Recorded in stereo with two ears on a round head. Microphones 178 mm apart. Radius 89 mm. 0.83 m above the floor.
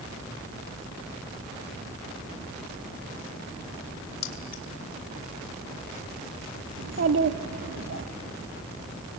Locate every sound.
4.2 s keys jangling: 65° left (ahead or behind), 3 m
6.8 s a child speaking: 70° right (ahead or behind), 1.1 m